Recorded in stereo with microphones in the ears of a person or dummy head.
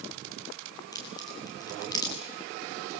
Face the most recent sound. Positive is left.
turn(degrees=20)  # may be behind; listen again after turning